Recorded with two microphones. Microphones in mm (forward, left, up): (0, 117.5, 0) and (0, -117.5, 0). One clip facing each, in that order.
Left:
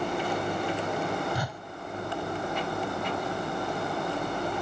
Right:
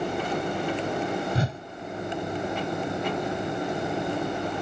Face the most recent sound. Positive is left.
turn(degrees=-30)  # may be behind; listen again after turning